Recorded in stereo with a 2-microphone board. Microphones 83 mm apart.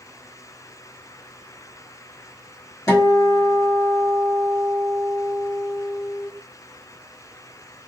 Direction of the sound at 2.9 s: 40° left (ahead or behind).